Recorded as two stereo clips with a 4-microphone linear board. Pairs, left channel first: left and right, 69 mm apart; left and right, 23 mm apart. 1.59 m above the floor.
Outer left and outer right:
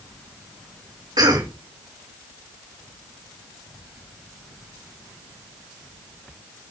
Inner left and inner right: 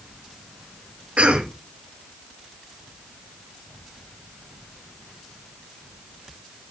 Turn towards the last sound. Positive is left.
turn(degrees=-80)